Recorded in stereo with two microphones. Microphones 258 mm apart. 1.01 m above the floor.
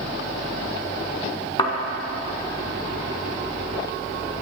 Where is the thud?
20° left (ahead or behind), 1.1 m.